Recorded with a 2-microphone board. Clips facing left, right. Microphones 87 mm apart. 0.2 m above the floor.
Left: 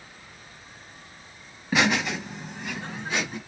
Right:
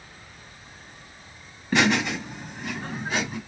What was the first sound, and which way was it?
Laughter, 5° left (ahead or behind).